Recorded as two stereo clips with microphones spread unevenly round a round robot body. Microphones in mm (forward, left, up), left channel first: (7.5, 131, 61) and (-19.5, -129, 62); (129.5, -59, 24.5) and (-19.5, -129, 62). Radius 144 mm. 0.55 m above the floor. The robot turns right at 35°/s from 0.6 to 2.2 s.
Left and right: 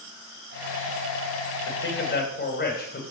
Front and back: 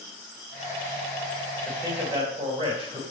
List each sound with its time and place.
1.6 s a man speaking: 115° left, 3 m; by 3.0 s 135° left, 3 m